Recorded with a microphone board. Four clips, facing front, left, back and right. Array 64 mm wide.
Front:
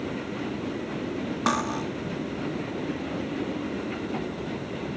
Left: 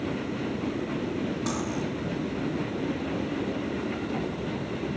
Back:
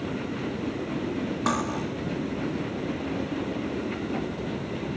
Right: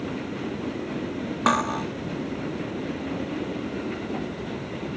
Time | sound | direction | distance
1.5 | cutlery clinking | 80° right | 1.0 m